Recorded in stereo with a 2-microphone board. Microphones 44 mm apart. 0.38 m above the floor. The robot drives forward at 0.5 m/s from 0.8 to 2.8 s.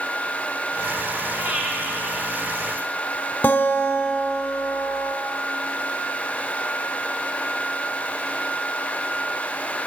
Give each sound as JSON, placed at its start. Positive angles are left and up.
{"t": 1.4, "sound": "breathing", "side_deg": -30, "distance_m": 2.0}
{"t": 3.4, "sound": "a guitar", "side_deg": 45, "distance_m": 0.7}